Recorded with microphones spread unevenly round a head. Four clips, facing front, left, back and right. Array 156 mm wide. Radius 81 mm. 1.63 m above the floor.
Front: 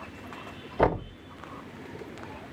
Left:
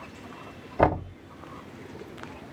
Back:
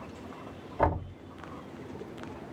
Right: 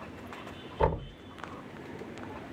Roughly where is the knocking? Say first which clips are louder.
Left 6 dB, front 3 dB; left.